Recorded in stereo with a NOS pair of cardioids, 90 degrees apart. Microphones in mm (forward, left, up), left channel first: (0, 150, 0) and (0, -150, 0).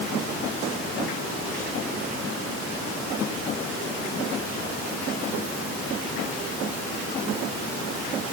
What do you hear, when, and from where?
Only background noise.